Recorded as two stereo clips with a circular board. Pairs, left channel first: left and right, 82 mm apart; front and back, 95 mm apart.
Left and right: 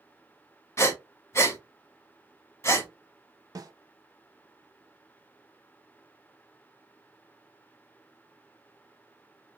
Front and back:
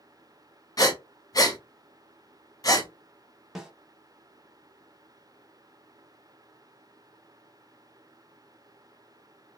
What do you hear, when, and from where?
0.8 s breathing: 40° left, 0.8 m
3.5 s a snare drum: 95° right, 0.8 m